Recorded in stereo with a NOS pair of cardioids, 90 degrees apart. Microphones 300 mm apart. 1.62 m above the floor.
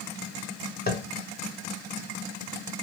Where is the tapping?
30° left, 0.7 m.